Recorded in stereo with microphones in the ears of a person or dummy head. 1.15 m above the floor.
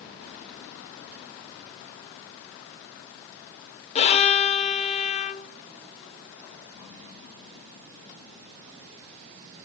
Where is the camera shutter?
No camera shutter in this recording.